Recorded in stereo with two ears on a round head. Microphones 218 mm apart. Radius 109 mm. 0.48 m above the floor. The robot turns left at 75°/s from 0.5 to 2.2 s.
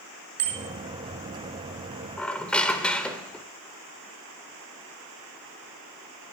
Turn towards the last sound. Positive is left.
turn(degrees=5)  # may be behind; listen again after turning